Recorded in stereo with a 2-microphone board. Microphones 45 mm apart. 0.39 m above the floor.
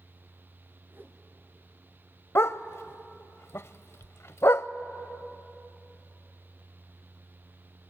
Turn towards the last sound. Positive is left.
turn(degrees=75)  # may be behind; listen again after turning